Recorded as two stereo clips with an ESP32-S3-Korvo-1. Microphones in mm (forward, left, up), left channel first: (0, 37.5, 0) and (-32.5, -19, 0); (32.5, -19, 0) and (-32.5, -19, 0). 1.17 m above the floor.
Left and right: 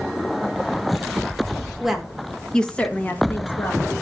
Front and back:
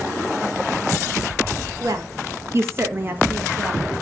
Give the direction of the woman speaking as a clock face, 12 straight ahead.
7 o'clock.